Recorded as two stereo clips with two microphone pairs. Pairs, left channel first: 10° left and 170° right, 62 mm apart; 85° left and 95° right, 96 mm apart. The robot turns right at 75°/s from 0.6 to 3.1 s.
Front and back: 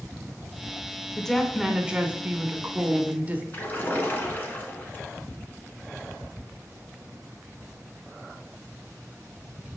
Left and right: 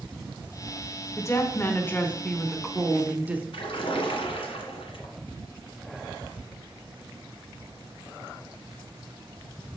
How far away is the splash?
About 1.5 m.